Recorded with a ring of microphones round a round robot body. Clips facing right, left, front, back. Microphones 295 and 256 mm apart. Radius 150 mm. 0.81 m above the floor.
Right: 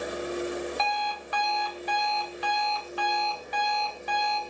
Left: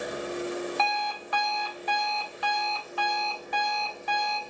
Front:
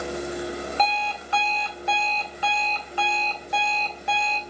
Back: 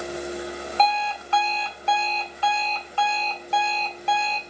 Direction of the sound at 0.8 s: 75° left.